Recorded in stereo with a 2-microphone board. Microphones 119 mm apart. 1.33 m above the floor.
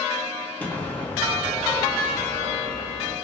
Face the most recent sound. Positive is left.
turn(degrees=15)  # may be behind; listen again after turning